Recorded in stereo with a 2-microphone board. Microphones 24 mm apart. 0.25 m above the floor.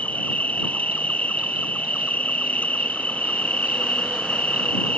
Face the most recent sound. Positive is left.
turn(degrees=80)